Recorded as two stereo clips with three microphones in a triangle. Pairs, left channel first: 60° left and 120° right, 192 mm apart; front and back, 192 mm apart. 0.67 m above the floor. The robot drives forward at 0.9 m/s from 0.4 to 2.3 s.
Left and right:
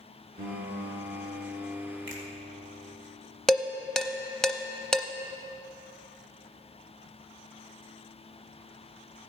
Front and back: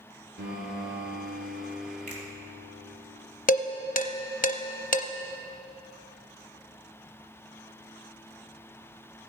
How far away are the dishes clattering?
About 0.6 m.